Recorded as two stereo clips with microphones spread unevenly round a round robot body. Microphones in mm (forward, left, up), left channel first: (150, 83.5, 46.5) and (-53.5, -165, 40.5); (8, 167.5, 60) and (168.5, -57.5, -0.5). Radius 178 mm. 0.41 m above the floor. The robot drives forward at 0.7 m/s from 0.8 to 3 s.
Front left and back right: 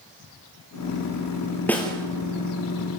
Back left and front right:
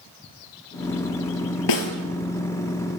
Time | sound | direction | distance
1.7 | a snare drum | 135° left | 2.5 m